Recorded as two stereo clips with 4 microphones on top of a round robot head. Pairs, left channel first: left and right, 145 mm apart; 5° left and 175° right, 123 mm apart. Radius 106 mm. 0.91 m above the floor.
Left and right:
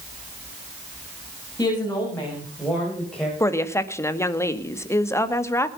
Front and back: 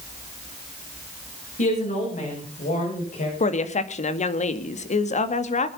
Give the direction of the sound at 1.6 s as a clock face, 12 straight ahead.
11 o'clock.